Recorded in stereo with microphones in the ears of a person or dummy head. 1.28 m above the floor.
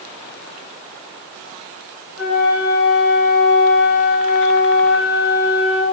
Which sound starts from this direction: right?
A flute, at 2.2 s.